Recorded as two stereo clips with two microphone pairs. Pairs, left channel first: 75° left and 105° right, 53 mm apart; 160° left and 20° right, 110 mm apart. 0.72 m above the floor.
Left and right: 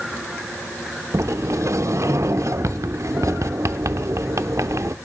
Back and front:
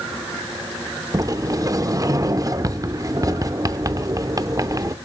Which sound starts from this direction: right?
A sliding door, at 1.1 s.